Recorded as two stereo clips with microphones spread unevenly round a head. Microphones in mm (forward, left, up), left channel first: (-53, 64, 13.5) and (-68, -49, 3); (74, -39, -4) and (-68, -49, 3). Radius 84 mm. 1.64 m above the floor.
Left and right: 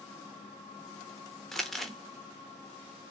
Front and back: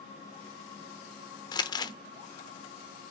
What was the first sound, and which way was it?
Crumpling, 10° left.